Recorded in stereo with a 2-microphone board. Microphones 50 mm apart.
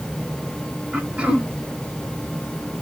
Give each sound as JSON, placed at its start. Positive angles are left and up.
{"t": 0.9, "sound": "throat clearing", "side_deg": -25, "distance_m": 1.2}